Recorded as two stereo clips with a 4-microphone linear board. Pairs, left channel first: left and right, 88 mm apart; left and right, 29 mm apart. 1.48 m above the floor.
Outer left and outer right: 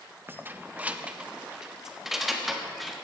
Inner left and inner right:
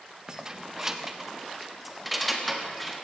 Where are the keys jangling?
25° right (ahead or behind), 0.7 m; by 2.9 s centre (ahead or behind), 1.9 m.